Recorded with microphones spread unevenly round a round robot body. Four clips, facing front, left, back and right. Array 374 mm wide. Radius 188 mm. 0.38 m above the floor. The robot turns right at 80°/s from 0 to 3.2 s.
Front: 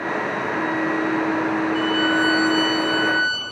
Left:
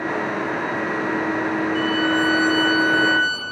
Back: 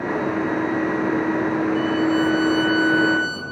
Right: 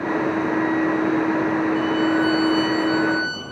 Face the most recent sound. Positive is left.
turn(degrees=140)